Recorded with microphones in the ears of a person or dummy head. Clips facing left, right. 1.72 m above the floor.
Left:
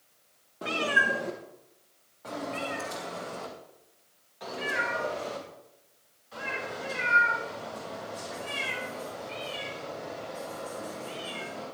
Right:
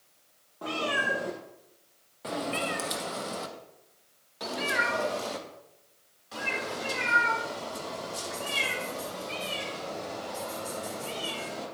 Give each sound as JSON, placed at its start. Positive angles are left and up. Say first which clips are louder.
{"t": 0.6, "sound": "a cat meowing", "louder": "left 1 dB", "side_deg": 15, "distance_m": 1.0}